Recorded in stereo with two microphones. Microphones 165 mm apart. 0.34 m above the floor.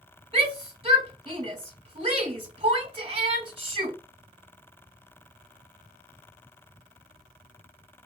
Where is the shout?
35° right (ahead or behind), 1.3 m.